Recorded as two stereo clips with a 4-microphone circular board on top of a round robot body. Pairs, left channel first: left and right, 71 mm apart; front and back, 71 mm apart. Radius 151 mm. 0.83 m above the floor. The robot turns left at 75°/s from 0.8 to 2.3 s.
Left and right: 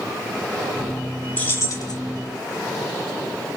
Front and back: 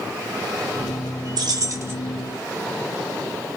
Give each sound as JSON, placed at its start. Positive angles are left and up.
{"t": 1.4, "sound": "keys jangling", "azimuth_deg": 160, "distance_m": 2.5}